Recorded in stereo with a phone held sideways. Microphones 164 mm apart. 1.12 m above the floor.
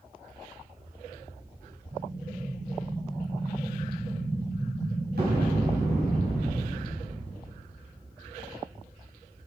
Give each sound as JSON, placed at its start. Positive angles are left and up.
{"t": 1.9, "sound": "an explosion", "side_deg": -80, "distance_m": 6.0}